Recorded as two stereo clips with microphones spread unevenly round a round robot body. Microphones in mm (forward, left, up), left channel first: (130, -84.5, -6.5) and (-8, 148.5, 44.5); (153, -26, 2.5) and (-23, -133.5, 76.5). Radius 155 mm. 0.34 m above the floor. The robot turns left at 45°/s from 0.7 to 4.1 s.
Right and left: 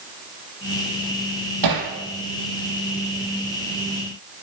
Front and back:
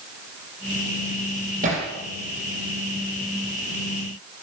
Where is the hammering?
150° left, 6 m; by 1.9 s 135° left, 6 m.